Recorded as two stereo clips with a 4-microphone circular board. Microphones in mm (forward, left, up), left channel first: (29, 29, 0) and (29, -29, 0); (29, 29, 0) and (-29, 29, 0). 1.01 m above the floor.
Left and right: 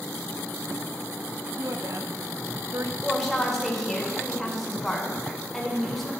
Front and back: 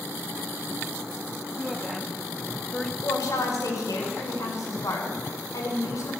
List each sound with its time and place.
1.6 s a woman speaking: 85° right, 1.2 m
3.0 s a woman speaking: straight ahead, 4.5 m